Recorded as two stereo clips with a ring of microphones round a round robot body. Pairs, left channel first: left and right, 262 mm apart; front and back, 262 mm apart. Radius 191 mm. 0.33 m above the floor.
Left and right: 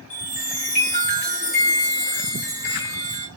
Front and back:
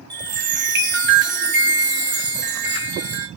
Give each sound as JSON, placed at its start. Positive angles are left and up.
{"t": 0.1, "sound": "a chime", "azimuth_deg": 140, "distance_m": 1.3}